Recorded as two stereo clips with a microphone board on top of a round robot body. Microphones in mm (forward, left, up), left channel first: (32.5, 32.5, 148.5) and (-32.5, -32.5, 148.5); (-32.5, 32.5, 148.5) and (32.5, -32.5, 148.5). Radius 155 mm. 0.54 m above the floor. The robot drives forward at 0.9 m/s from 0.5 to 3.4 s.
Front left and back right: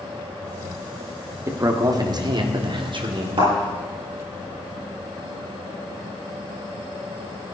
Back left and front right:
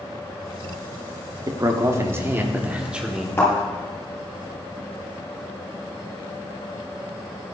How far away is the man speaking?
About 2 m.